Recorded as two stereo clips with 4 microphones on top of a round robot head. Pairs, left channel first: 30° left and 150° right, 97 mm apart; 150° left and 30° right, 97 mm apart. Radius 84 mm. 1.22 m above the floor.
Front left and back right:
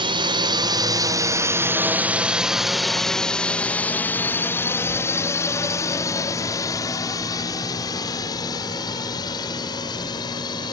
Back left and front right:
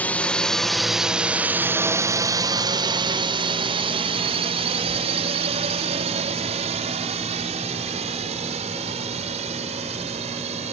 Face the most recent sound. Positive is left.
turn(degrees=-20)